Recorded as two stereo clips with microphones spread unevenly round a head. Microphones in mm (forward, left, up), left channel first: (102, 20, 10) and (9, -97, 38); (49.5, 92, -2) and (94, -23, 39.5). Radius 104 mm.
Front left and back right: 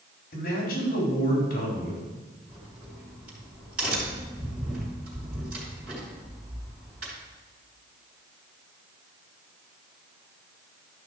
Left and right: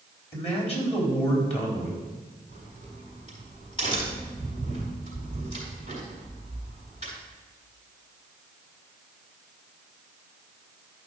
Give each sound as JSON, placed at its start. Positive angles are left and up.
{"t": 0.3, "sound": "a man speaking", "azimuth_deg": 75, "distance_m": 4.0}
{"t": 2.5, "sound": "a crack", "azimuth_deg": 175, "distance_m": 4.5}